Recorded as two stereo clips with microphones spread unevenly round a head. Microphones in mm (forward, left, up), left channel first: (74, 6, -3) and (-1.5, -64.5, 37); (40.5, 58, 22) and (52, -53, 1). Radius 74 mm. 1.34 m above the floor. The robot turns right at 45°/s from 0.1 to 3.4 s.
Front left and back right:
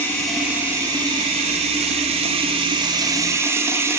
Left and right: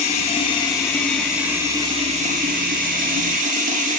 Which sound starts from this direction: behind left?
Running water, at 0.0 s.